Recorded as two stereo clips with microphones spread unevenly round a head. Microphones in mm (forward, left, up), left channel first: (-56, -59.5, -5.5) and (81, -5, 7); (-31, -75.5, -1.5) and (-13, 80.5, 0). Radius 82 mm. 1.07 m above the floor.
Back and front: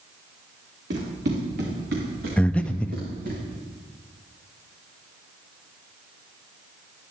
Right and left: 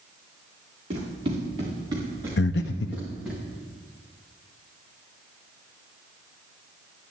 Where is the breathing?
75° right, 0.6 m.